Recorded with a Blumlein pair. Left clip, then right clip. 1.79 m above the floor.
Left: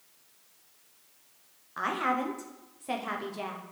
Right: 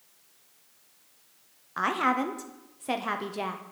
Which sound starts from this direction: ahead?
A woman speaking, at 1.8 s.